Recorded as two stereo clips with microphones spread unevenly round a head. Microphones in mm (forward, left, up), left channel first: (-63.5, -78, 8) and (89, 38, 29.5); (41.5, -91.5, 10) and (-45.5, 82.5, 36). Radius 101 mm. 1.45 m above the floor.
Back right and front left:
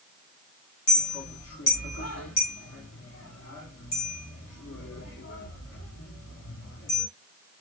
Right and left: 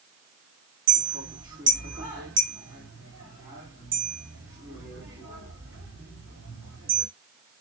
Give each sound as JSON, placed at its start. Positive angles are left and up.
{"t": 0.9, "sound": "a clink", "azimuth_deg": -175, "distance_m": 3.0}